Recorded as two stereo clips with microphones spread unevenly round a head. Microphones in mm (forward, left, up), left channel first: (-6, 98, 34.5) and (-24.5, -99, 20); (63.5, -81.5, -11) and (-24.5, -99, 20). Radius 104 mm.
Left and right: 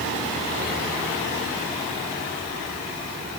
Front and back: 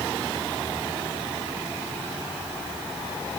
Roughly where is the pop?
I don't hear a pop.